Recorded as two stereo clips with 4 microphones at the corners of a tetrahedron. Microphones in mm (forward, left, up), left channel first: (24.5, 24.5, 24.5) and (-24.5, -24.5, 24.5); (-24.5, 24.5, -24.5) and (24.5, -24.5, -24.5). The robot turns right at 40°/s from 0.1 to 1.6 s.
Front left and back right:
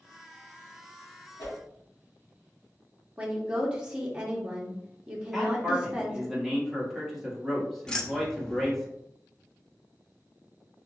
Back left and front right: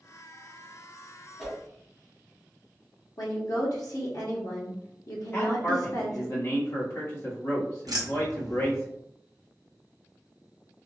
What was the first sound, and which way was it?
A whoosh, 45° left.